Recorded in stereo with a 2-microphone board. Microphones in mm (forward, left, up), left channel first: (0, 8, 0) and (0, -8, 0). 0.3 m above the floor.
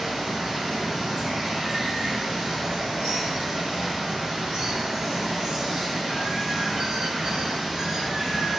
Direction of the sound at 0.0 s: 35° right (ahead or behind).